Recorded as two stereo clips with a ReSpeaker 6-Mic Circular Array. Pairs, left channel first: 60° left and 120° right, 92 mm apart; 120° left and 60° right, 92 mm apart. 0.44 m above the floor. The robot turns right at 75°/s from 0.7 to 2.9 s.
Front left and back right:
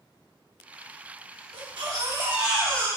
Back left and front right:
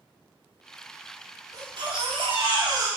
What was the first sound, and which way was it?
A baby crying, 105° right.